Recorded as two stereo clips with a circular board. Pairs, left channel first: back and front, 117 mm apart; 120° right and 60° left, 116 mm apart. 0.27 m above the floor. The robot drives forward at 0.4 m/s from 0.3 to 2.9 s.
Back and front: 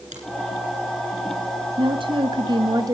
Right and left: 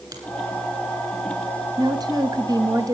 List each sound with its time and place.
0.1 s a finger snap: 5° left, 8.5 m
1.8 s a woman speaking: 15° left, 1.4 m; by 2.9 s 30° left, 1.1 m